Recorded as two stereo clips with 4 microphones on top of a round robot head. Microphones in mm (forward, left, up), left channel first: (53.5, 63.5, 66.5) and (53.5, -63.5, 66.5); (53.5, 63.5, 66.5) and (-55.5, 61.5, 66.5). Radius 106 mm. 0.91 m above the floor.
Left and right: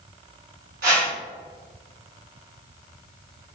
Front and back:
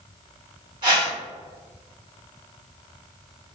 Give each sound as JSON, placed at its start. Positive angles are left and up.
{"t": 0.8, "sound": "a whoosh", "azimuth_deg": -115, "distance_m": 1.8}